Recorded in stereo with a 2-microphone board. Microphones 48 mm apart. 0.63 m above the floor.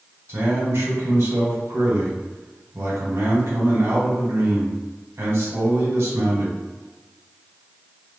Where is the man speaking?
70° right (ahead or behind), 1.8 m.